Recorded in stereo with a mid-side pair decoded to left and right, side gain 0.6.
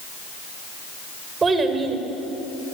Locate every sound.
1.4 s a child speaking: 30° right, 3.5 m